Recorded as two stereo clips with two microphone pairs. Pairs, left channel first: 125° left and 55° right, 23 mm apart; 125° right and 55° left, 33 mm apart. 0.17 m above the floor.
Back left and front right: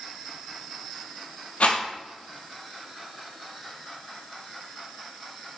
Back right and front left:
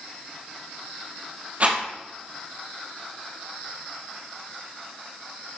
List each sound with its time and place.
1.6 s a rattle: 105° left, 4 m